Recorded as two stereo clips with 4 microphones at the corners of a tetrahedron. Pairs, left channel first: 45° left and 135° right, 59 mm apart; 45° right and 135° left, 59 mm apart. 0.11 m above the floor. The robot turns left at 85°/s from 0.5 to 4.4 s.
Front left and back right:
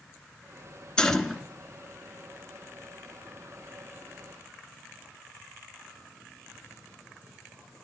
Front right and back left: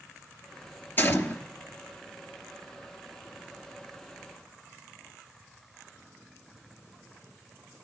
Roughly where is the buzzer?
I don't hear a buzzer.